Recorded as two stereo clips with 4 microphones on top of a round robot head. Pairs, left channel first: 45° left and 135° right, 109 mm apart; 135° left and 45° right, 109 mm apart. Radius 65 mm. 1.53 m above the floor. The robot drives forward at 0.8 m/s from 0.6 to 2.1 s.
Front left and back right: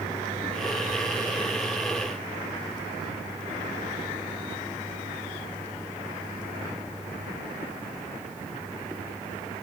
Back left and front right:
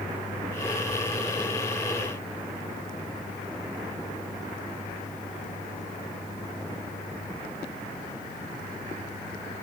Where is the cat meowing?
I don't hear a cat meowing.